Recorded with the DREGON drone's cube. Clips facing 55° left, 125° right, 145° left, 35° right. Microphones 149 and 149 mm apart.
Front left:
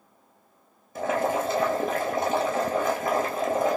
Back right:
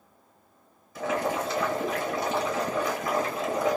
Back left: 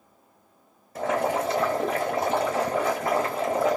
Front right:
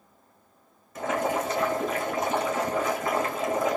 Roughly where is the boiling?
Left.